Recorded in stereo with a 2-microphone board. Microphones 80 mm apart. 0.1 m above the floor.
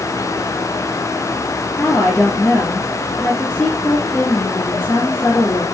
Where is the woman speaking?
25° left (ahead or behind), 1.7 m.